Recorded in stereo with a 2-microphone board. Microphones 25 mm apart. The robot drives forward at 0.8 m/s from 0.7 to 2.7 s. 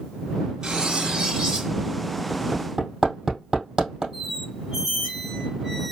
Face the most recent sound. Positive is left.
turn(degrees=-10)  # may be behind; listen again after turning